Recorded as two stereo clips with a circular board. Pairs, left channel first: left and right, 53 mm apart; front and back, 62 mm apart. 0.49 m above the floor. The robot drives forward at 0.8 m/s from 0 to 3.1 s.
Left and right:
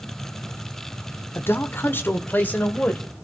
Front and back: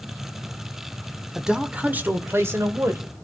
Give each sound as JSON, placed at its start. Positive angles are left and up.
{"t": 1.4, "sound": "a man speaking", "azimuth_deg": 100, "distance_m": 1.2}